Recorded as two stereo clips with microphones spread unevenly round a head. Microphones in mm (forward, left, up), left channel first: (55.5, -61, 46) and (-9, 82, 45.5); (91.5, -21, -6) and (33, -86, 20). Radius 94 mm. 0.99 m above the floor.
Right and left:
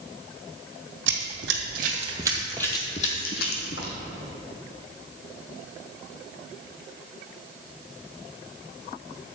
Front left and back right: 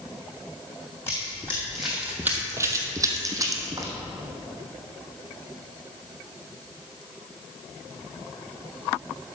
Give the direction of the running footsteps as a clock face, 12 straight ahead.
8 o'clock.